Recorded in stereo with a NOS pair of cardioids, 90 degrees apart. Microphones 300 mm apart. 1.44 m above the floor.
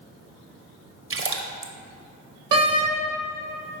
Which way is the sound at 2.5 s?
55° right.